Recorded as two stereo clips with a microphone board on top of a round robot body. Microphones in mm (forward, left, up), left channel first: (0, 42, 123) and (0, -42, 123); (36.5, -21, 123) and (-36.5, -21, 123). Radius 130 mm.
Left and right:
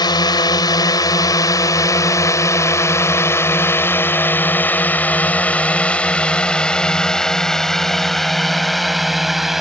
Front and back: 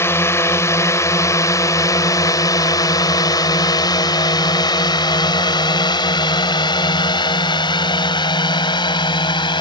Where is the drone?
55° left; by 9.6 s 5° right.